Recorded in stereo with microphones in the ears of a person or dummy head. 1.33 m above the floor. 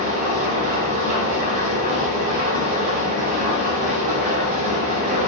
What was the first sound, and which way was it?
An engine running, 50° right (ahead or behind).